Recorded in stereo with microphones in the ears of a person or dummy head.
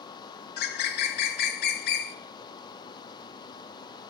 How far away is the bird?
About 0.7 m.